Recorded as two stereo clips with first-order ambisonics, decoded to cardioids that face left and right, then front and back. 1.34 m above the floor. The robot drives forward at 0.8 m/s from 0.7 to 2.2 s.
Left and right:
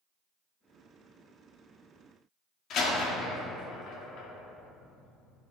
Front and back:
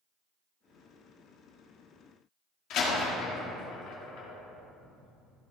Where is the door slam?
40° left, 1.7 m.